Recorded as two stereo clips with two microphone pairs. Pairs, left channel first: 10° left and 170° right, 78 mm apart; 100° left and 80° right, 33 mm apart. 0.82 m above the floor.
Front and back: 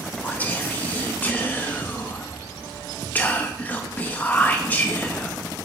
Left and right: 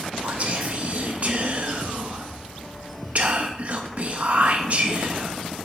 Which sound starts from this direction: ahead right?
Whispering, at 0.2 s.